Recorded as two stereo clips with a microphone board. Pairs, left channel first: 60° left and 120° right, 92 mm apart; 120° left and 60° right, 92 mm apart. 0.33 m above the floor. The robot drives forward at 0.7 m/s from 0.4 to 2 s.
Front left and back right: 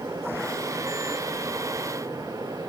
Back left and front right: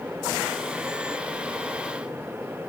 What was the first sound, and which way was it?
Only background noise.